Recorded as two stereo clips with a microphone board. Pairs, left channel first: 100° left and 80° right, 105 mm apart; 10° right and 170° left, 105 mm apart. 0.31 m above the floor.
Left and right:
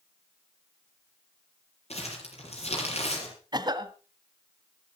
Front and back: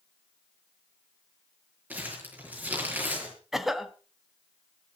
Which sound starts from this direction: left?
Crumpling, at 1.9 s.